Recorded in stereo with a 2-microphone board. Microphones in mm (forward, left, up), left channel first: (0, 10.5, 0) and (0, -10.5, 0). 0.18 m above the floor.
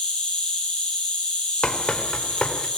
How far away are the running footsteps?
About 4 m.